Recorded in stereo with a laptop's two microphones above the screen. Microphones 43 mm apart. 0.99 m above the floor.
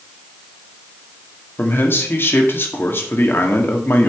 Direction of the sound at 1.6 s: 50° left (ahead or behind).